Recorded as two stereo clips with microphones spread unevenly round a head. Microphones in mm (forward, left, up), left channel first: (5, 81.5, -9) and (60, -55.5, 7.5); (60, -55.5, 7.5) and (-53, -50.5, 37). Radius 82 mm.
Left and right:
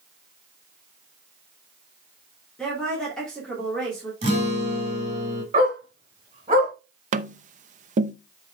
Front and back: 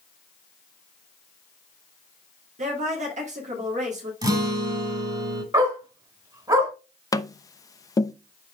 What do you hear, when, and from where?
2.6 s a woman speaking: 165° right, 3 m
4.2 s a guitar: 125° right, 3.5 m
5.5 s a dog barking: 130° right, 3.5 m
7.1 s tapping: 40° right, 0.7 m